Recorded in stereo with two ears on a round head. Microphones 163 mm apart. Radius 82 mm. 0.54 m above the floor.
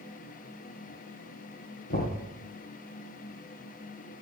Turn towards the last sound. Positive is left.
turn(degrees=50)  # may be behind; listen again after turning